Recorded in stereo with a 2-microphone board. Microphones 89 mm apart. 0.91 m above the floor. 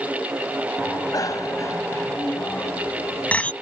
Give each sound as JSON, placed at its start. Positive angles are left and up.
{"t": 0.8, "sound": "a bicycle bell", "side_deg": 45}